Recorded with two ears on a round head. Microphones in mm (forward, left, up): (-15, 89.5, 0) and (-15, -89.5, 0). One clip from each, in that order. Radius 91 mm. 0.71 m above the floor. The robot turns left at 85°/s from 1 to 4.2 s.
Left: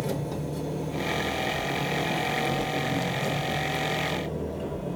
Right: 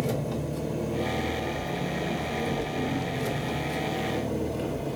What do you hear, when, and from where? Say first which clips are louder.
0.0 s an engine running: right 1 dB; 175° right, 1.2 m; by 5.0 s 85° right, 1.2 m